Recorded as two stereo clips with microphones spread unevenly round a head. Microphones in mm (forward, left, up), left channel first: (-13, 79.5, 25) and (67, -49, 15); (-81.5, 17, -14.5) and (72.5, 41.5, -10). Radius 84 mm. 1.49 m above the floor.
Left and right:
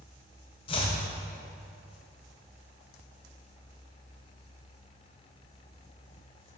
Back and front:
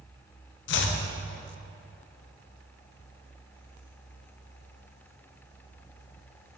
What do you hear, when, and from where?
0.7 s chopping: 175° right, 0.6 m